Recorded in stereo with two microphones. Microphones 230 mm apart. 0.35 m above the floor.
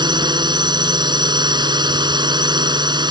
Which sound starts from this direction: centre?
A drone, at 0.0 s.